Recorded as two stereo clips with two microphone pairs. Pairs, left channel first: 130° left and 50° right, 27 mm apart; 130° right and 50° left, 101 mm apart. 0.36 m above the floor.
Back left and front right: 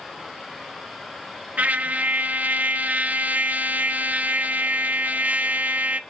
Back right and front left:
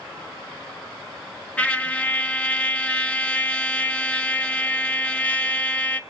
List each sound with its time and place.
1.6 s a trumpet: 50° right, 1.3 m